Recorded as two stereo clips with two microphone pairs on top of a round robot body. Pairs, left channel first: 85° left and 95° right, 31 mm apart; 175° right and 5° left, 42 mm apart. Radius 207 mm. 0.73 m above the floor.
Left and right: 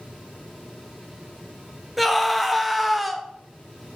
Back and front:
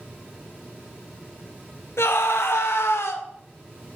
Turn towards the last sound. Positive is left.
turn(degrees=175)